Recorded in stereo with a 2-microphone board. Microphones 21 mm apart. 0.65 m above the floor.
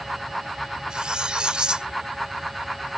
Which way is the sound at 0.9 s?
45° right (ahead or behind).